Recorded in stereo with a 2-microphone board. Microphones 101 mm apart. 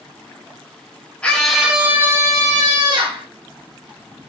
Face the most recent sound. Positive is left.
turn(degrees=-55)  # may be behind; listen again after turning